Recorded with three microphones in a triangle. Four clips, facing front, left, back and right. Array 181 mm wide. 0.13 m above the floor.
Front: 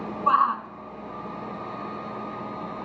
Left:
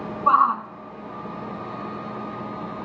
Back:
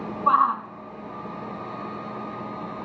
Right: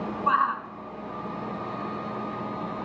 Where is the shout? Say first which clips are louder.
Left 6 dB, back 1 dB; 100° left, 1.2 m.